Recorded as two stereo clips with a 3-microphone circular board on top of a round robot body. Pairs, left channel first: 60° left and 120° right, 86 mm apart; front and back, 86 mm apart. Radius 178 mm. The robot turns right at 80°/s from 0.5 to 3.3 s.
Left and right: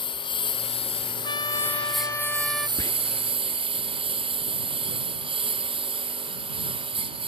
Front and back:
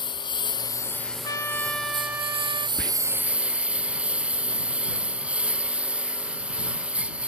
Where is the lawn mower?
35° left; by 7.3 s 105° right.